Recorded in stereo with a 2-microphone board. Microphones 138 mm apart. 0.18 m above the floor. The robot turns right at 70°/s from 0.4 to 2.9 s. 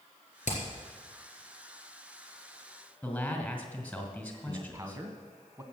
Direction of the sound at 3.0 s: 5° left (ahead or behind).